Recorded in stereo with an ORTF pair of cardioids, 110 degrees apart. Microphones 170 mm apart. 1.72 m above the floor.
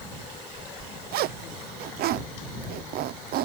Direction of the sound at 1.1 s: 70° right.